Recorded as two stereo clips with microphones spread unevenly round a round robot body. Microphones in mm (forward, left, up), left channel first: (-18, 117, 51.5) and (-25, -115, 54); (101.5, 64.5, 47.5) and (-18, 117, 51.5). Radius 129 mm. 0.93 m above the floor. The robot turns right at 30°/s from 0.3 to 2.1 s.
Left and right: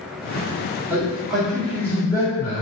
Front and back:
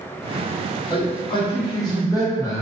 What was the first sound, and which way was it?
A man speaking, 15° right.